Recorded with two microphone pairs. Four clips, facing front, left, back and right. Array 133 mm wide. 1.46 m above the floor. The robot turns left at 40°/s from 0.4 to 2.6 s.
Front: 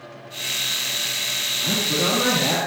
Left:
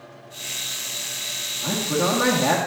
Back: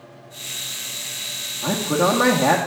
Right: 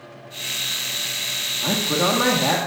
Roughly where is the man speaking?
Behind right.